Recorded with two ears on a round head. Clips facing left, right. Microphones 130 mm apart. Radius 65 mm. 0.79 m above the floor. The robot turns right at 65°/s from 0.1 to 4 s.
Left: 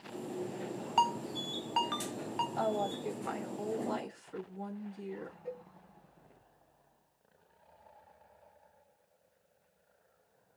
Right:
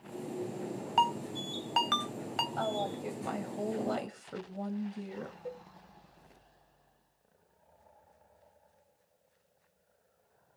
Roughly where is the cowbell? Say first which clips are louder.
Left 2 dB; right.